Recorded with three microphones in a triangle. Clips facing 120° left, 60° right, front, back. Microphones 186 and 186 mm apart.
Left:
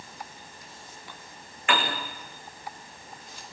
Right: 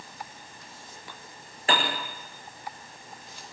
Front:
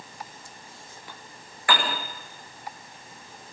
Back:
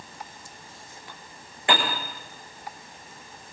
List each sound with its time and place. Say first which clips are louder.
1.7 s a piano: even, back 1 dB; 115° right, 6 m